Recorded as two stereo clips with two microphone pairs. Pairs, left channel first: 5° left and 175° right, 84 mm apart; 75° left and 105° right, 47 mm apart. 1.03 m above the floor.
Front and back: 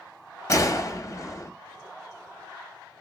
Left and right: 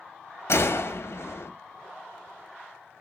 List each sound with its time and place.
0.5 s a gunshot: 50° left, 0.6 m